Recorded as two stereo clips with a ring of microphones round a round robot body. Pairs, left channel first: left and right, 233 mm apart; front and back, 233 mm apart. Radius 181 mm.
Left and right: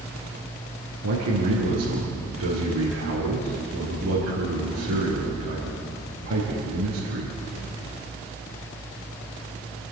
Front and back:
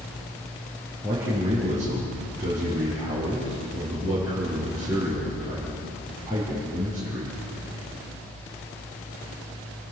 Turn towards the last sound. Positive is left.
turn(degrees=-95)